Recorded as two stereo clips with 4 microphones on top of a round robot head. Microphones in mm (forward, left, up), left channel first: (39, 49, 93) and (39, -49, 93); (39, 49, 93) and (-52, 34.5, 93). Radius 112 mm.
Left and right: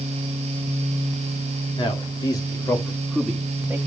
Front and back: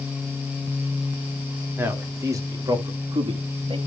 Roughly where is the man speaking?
Behind left.